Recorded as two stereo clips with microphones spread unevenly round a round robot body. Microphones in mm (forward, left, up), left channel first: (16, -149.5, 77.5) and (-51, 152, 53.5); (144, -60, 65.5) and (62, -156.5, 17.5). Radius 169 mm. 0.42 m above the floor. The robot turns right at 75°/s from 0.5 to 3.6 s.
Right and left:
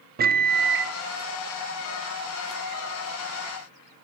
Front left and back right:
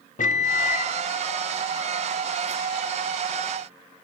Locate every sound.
0.2 s a microwave: 65° left, 0.6 m; by 0.9 s 100° left, 0.6 m